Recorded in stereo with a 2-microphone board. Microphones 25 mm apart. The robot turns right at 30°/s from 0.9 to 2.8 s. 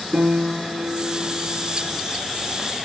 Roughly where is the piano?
Ahead right.